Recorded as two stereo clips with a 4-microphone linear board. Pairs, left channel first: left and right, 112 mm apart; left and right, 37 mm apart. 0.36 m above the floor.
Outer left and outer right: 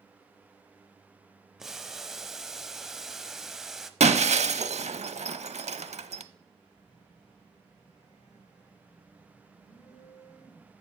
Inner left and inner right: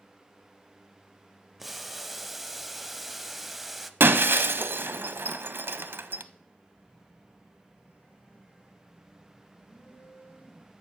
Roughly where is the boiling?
Centre.